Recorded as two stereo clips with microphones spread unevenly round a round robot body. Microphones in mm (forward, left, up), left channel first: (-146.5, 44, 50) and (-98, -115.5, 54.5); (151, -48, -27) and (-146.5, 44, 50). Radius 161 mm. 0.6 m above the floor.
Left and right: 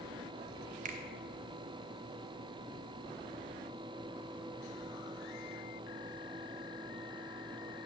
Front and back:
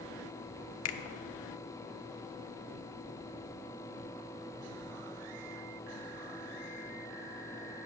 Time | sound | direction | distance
0.8 | a finger snap | 30° right | 0.7 m